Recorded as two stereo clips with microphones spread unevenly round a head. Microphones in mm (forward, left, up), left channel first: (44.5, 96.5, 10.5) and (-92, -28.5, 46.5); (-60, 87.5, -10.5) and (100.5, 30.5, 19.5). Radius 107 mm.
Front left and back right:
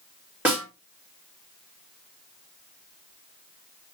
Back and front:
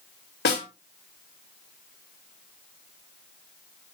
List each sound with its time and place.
0.5 s a snare drum: 140° left, 5.5 m